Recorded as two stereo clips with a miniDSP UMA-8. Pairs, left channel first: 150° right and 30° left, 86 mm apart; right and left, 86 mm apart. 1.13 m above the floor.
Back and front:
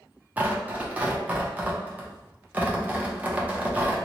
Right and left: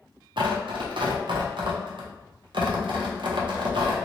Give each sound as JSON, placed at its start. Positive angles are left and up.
{"t": 0.4, "sound": "tearing paper", "azimuth_deg": 100, "distance_m": 0.5}